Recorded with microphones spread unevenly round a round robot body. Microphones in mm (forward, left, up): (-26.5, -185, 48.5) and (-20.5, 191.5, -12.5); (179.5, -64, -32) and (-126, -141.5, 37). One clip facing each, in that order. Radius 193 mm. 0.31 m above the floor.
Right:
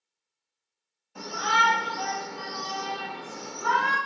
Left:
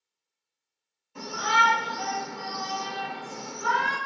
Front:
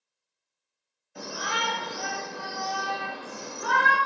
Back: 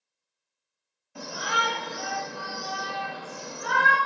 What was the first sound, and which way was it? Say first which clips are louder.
A shout: left 1 dB, back 1 dB; 165° left.